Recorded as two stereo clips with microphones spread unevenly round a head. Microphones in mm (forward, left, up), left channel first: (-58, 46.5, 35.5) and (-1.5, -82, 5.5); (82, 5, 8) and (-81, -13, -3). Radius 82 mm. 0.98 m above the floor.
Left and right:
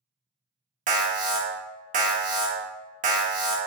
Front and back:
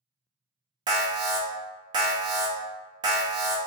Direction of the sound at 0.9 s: 105° right.